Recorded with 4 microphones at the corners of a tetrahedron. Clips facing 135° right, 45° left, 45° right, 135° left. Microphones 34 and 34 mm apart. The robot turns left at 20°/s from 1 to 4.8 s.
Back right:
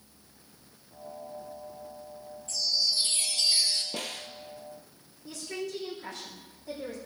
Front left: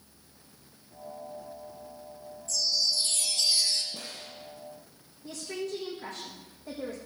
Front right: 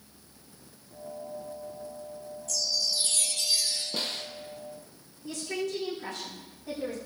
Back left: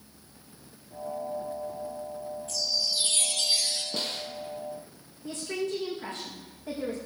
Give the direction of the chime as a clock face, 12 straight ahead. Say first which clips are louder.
Even, even; 6 o'clock.